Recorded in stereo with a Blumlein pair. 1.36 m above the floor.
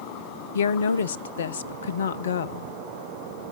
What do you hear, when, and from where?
0.6 s a woman speaking: 60° left, 0.7 m